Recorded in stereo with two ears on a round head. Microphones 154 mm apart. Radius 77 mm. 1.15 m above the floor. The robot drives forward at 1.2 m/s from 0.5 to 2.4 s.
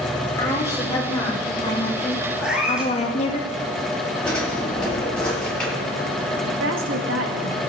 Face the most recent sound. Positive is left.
turn(degrees=-85)